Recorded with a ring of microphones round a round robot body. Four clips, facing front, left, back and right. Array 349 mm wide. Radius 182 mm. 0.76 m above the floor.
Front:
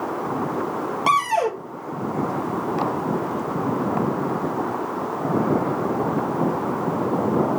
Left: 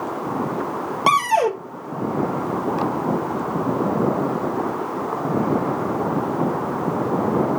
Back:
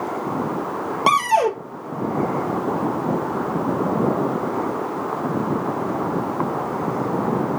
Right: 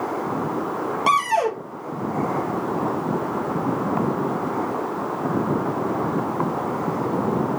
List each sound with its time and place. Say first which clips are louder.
1.1 s a cupboard door: left 3 dB, back 3 dB; 135° left, 1.0 m